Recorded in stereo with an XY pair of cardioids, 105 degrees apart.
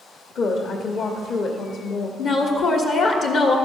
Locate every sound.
0.3 s a woman speaking: 65° left, 1.1 m
2.2 s a woman speaking: 70° left, 1.2 m